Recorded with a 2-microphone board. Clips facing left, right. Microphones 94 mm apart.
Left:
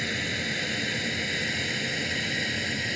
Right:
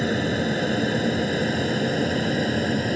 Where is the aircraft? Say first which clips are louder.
Right 9 dB; 40° right (ahead or behind).